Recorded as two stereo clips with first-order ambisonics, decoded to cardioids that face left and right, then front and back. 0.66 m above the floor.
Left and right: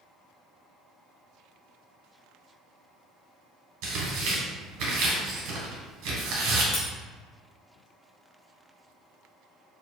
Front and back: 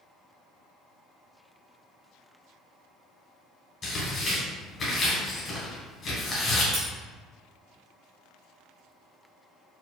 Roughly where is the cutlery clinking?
Left.